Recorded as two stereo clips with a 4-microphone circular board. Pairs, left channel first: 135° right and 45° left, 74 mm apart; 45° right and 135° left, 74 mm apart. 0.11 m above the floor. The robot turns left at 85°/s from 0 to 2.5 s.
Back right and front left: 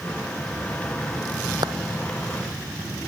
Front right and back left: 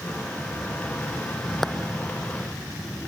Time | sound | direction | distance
1.6 | a clap | 45° left | ?